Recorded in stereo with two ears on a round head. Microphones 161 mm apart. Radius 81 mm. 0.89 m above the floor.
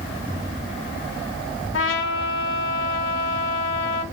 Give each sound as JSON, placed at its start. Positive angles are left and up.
{"t": 1.7, "sound": "a trumpet", "side_deg": 75, "distance_m": 0.6}